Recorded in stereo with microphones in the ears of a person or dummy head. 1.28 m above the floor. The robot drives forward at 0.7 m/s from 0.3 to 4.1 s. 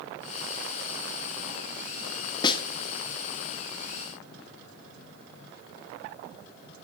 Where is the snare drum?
20° left (ahead or behind), 0.9 m; by 2.6 s 25° left (ahead or behind), 0.7 m.